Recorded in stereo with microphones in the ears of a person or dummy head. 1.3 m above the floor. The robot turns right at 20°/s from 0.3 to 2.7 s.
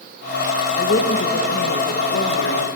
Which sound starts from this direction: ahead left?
A woman speaking, at 0.8 s.